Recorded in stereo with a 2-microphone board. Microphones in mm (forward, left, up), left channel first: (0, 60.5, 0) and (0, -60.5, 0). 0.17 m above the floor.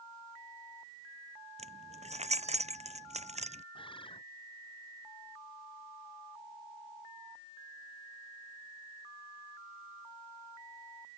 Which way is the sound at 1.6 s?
75° right (ahead or behind).